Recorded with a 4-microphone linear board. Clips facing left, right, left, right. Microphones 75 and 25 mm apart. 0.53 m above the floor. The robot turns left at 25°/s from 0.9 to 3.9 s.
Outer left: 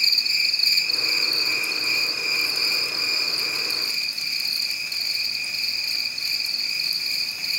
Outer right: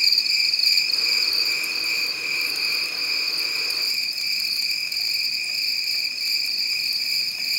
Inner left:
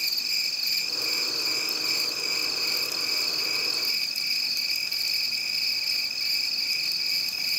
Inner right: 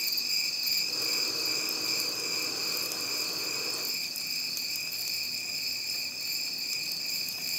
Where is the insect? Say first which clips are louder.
Even, inner left 3 dB; 135° left, 1.4 m; by 7.6 s 60° left, 1.4 m.